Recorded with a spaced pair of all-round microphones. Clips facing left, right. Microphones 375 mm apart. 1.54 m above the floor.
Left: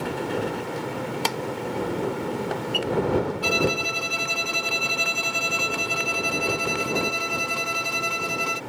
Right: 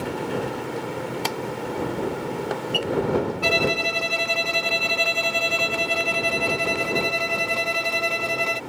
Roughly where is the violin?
Left.